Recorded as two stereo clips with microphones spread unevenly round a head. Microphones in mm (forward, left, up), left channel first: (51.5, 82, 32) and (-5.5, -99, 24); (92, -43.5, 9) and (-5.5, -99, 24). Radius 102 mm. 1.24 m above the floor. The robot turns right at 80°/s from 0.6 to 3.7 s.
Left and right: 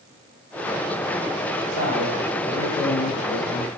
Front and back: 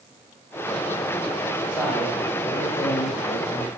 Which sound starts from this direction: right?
A man speaking, at 1.7 s.